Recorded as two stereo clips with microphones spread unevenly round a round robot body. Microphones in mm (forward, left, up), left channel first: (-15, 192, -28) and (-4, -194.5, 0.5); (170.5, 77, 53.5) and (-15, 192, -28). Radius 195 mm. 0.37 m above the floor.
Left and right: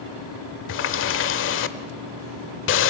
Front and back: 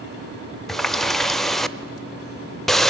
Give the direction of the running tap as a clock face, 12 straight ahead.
9 o'clock.